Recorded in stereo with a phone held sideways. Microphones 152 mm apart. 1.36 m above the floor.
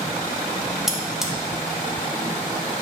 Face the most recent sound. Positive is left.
turn(degrees=-5)  # may be behind; listen again after turning